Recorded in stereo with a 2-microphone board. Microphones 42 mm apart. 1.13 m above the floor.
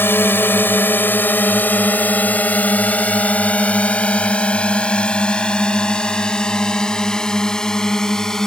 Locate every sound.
0.0 s a drone: 60° left (ahead or behind); by 8.5 s 10° left (ahead or behind)